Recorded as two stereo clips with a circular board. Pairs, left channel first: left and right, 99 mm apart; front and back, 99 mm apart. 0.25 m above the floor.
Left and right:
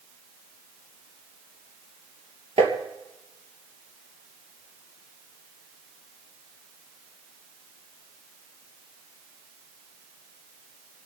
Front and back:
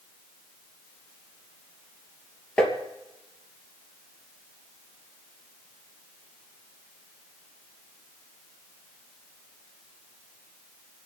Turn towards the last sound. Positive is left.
turn(degrees=-80)